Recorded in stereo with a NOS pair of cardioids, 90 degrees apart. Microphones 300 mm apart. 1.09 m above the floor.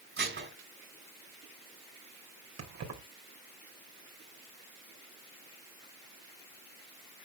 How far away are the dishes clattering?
About 3.5 m.